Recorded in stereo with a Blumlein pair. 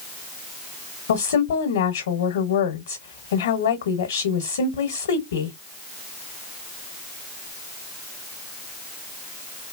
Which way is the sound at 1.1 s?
65° left.